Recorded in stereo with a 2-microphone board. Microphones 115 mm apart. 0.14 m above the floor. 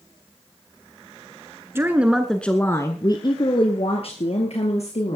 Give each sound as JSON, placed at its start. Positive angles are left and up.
{"t": 1.8, "sound": "a woman speaking", "side_deg": -20, "distance_m": 1.4}